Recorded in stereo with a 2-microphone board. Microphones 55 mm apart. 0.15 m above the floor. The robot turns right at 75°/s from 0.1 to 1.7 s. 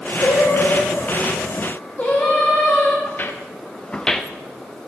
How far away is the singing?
About 2.5 m.